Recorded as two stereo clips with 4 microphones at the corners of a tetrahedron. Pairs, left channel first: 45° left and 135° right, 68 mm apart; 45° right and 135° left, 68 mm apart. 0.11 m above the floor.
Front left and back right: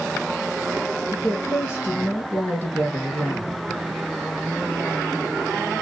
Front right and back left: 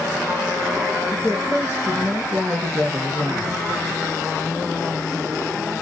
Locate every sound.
1.1 s a woman speaking: 20° left, 1.4 m